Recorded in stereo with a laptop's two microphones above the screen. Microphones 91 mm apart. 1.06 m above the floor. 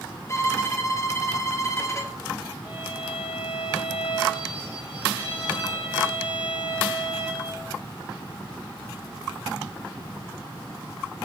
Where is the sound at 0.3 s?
35° left (ahead or behind), 0.8 m.